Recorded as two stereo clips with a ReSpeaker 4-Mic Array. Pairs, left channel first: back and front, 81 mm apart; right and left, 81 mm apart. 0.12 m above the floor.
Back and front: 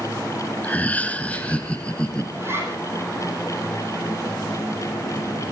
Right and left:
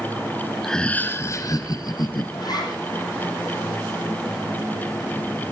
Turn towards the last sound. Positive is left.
turn(degrees=-60)